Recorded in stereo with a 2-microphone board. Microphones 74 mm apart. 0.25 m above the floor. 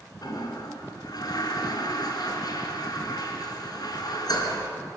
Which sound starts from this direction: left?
A toilet flushing, at 0.2 s.